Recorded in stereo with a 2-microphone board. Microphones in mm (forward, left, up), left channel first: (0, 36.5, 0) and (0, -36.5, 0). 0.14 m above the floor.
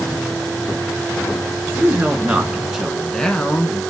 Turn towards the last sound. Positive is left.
turn(degrees=30)  # may be behind; listen again after turning